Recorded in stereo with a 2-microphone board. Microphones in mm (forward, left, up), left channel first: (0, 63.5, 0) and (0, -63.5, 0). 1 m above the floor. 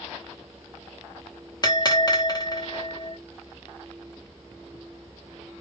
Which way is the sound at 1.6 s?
30° left (ahead or behind).